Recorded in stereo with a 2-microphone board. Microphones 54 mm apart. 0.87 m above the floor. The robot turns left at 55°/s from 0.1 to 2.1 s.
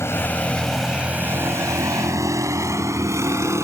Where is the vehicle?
55° left (ahead or behind); by 3.6 s 60° right (ahead or behind).